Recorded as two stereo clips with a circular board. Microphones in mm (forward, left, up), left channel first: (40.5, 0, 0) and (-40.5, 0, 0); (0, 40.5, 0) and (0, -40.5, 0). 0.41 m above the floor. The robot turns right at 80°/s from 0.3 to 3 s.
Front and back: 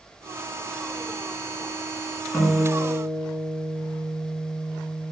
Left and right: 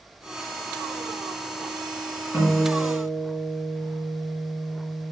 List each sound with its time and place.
2.3 s a guitar: 70° left, 1.9 m; by 5.1 s 125° left, 1.9 m